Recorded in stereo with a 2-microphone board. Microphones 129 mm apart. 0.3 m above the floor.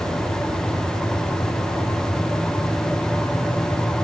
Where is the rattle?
I don't hear a rattle.